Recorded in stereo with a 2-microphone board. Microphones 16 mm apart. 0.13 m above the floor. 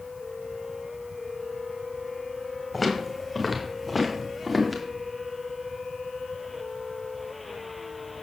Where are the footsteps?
Centre (ahead or behind), 5 m; by 4.8 s 10° right (ahead or behind), 5.5 m.